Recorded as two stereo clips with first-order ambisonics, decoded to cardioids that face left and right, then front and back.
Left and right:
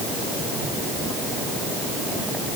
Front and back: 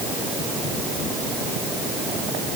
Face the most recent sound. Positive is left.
No sound to turn to.